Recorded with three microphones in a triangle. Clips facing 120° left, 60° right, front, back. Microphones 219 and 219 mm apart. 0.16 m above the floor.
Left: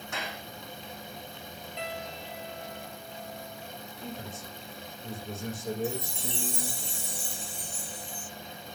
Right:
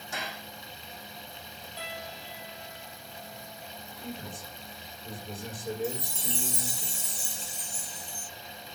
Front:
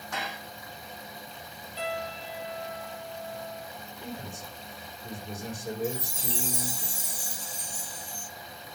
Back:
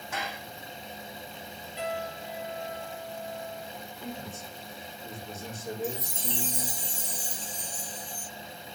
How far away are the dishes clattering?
About 6 m.